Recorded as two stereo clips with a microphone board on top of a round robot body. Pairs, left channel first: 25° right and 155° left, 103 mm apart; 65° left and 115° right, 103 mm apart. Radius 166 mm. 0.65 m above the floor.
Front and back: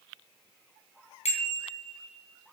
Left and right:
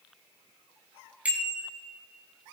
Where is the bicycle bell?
35° right, 5 m; by 2.5 s 50° right, 5.5 m.